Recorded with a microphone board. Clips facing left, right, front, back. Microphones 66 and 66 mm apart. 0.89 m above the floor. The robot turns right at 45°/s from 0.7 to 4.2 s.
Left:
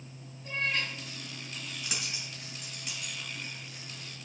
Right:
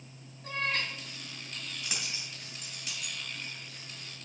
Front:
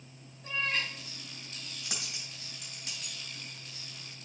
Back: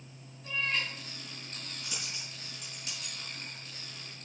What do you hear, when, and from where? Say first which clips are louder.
0.4 s a cat meowing: even, even; 55° right, 2.5 m; by 0.9 s 45° right, 2.5 m
1.8 s a dropped coin: even, front 1 dB; straight ahead, 3 m; by 3.1 s 60° left, 3 m